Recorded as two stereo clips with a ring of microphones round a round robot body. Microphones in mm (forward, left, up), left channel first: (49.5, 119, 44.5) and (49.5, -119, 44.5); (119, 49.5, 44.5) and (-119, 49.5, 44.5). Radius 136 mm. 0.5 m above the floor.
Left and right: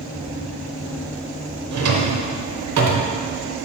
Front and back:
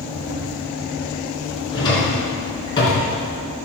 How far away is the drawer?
About 1.0 m.